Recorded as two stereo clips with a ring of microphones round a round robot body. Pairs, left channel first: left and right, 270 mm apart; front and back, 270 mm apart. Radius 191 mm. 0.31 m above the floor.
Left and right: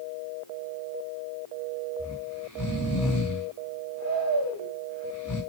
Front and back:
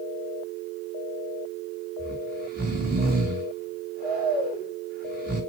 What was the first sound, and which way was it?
Snoring, 125° left.